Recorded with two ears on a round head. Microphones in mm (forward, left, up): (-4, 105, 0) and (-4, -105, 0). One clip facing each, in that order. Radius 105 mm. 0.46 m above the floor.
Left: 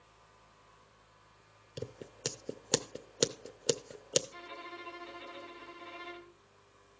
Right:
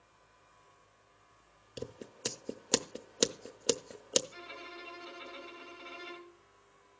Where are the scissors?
Centre (ahead or behind), 0.5 m.